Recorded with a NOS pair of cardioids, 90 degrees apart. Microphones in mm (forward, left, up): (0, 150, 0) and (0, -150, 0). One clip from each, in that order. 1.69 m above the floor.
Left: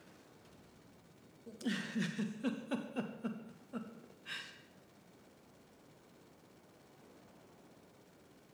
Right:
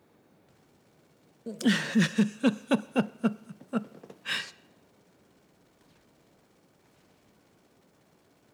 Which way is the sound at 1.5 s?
60° right.